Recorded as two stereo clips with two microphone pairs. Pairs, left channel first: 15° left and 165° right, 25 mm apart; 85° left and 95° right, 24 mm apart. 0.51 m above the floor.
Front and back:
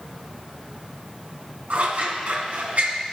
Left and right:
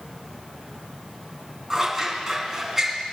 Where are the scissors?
175° right, 2.0 m.